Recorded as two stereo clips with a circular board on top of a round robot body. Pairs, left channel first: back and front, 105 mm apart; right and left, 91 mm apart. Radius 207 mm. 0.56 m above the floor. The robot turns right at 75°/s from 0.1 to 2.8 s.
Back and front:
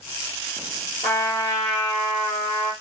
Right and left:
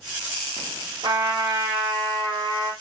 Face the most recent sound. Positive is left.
turn(degrees=-125)